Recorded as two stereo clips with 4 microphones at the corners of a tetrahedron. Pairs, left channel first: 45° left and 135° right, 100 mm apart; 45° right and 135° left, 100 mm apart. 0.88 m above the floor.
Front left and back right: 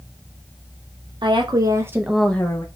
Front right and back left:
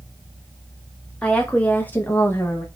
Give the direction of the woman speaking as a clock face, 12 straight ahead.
4 o'clock.